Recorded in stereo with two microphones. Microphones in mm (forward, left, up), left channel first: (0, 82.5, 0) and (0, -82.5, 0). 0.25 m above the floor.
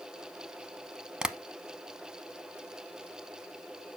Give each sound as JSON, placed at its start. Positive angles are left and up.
{"t": 1.2, "sound": "tapping", "side_deg": -5, "distance_m": 0.6}